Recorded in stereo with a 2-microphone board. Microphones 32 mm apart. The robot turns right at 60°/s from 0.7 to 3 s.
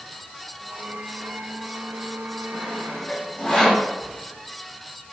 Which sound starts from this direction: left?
Sawing, at 2.5 s.